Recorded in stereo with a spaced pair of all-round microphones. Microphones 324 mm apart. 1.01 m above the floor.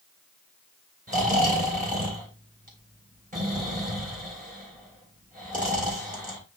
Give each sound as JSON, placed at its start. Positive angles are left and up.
{"t": 1.1, "sound": "snoring", "side_deg": -25, "distance_m": 3.0}